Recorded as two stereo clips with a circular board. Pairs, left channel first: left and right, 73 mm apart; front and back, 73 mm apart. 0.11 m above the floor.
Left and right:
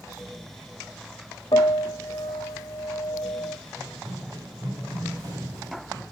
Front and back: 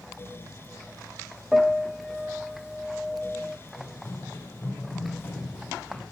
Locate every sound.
1.5 s a piano: 90° left, 1.5 m
3.8 s running footsteps: 55° right, 4.5 m; by 6.0 s 75° right, 5 m